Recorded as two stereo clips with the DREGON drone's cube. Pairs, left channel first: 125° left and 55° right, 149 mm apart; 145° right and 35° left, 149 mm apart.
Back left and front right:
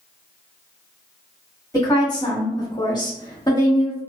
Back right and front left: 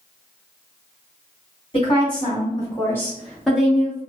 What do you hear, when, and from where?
1.7 s a woman speaking: straight behind, 1.5 m; by 4.0 s 95° left, 1.1 m